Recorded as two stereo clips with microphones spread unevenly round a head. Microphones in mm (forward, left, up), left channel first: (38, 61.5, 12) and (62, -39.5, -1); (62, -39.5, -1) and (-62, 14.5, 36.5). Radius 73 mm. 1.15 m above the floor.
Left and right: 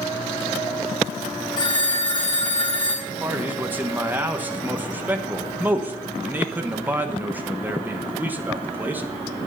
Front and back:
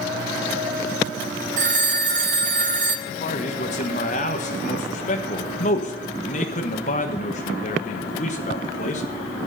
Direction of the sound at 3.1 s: 10° right.